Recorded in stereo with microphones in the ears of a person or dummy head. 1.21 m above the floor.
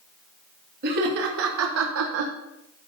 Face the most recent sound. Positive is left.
turn(degrees=-45)  # may be behind; listen again after turning